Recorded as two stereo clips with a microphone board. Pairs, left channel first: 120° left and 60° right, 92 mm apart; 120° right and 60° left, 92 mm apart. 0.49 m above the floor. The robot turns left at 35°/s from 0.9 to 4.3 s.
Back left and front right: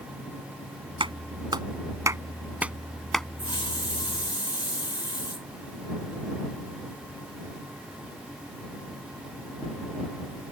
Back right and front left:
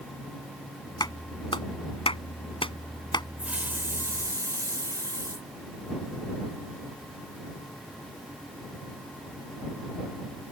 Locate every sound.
1.0 s a clap: 80° right; by 3.3 s 160° right
3.4 s a hiss: 135° left; by 5.5 s 105° left